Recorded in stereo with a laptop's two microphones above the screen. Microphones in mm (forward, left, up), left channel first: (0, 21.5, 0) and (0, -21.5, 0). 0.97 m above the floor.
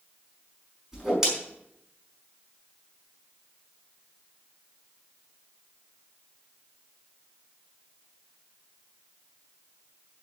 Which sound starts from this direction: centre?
A whoosh, at 0.9 s.